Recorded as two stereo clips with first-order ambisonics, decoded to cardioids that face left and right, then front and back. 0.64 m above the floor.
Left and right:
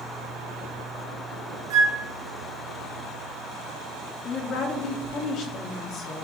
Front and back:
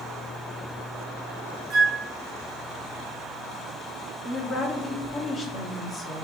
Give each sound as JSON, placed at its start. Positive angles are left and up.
{"t": 1.7, "sound": "a flute", "azimuth_deg": -105, "distance_m": 2.5}
{"t": 4.2, "sound": "a woman speaking", "azimuth_deg": 60, "distance_m": 1.3}